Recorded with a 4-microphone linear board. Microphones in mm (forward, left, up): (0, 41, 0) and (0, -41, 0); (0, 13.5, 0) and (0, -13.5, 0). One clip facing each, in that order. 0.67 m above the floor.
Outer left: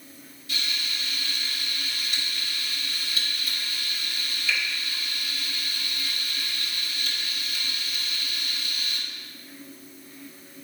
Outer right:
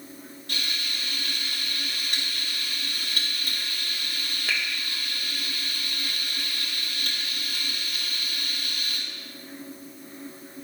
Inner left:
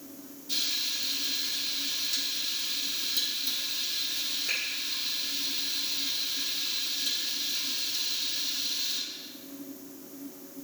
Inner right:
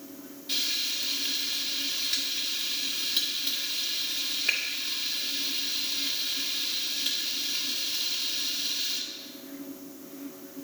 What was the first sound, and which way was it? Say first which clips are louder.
Frying: even, inner right 1 dB; 55° right (ahead or behind).